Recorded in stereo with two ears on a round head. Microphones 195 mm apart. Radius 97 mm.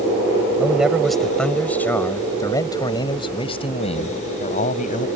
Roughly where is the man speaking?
Centre.